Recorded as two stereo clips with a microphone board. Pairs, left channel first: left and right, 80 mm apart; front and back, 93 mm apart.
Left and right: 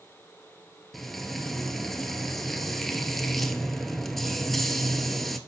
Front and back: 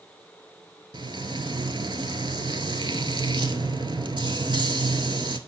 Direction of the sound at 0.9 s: 175° left.